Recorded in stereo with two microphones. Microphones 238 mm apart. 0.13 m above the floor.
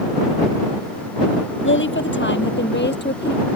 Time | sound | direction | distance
1.6 | a woman speaking | 55° left (ahead or behind) | ?